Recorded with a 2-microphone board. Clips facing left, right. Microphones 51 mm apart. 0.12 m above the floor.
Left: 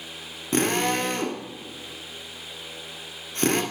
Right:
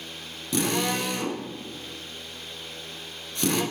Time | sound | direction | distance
0.5 | a drill | 45° left (ahead or behind) | 0.8 m